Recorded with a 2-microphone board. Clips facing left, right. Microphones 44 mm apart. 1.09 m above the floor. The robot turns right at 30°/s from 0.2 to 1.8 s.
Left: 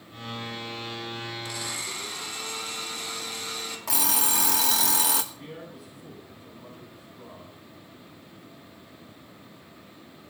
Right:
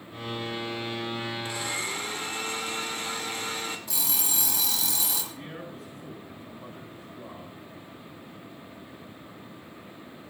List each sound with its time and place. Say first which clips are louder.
1.4 s a blender: right 3 dB; 30° right (ahead or behind), 1.9 m; by 3.8 s 40° right (ahead or behind), 1.9 m
3.9 s an alarm clock: left 6 dB; 80° left, 1.2 m
5.3 s a man speaking: right 2 dB; 55° right (ahead or behind), 6 m